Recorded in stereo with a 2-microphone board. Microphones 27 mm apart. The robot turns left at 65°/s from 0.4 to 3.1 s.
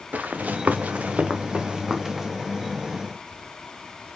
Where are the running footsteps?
85° right, 1.0 m; by 2.3 s 5° right (ahead or behind), 1.6 m.